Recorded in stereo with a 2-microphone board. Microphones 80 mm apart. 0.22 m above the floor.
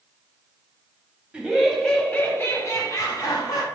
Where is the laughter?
15° right (ahead or behind), 1.0 m; by 3.6 s 50° left (ahead or behind), 1.5 m.